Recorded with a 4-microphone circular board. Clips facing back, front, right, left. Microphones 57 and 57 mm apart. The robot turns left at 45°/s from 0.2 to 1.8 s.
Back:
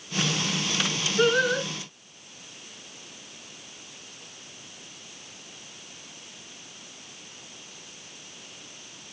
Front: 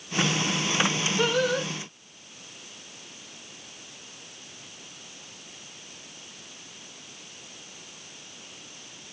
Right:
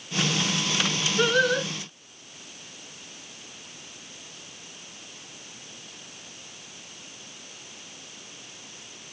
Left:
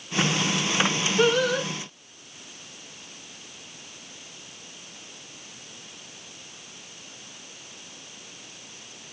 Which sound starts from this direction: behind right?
Singing, at 1.2 s.